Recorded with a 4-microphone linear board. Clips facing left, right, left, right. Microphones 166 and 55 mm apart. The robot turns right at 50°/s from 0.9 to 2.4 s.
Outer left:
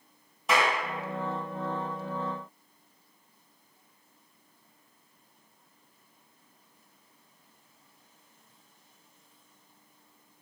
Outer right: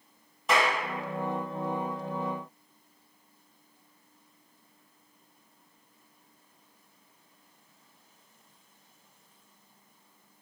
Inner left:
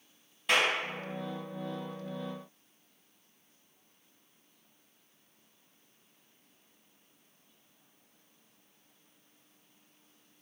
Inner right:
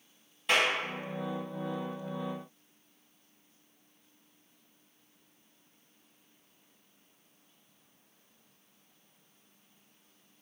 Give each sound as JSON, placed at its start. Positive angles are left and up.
{"t": 0.5, "sound": "a clap", "side_deg": 0, "distance_m": 1.4}